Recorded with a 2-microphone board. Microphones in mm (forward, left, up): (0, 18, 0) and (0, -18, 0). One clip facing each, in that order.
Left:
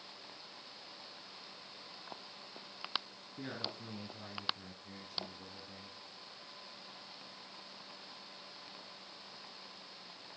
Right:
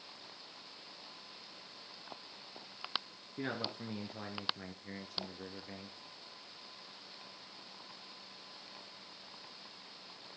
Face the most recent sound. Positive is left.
turn(degrees=-45)  # may be behind; listen again after turning